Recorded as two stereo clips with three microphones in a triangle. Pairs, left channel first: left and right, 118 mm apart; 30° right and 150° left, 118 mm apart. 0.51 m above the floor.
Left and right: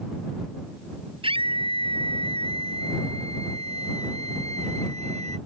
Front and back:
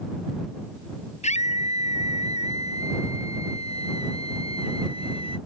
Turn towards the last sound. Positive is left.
turn(degrees=-65)